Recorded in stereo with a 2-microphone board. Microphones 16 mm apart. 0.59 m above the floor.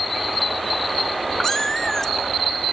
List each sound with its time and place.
1.4 s a cat meowing: 20° left (ahead or behind), 1.3 m